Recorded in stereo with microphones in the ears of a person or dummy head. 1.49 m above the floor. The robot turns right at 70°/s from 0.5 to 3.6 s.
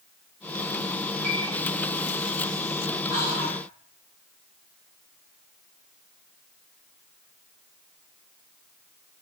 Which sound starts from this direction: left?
Whispering, at 3.1 s.